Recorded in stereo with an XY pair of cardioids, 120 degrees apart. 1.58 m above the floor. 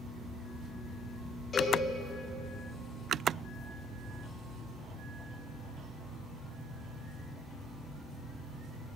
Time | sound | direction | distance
1.5 | a cowbell | 35° left | 4.5 m